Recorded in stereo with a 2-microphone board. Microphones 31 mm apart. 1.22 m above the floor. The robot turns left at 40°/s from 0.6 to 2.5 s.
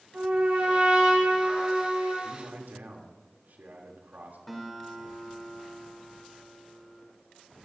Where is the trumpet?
130° right, 7.5 m; by 2.1 s 170° left, 7.5 m.